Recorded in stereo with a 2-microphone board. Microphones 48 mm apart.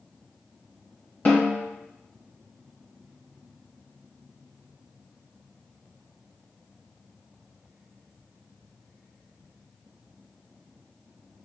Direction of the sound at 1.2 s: 35° left (ahead or behind).